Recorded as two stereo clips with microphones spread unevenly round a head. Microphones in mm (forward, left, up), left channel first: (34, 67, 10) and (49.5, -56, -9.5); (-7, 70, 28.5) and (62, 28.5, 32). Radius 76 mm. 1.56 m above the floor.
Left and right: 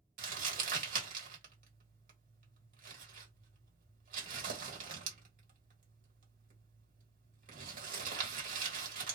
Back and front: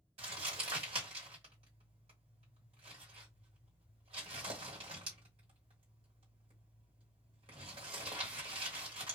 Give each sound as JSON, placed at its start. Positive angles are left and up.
{"t": 0.2, "sound": "crumpling", "azimuth_deg": -70, "distance_m": 1.3}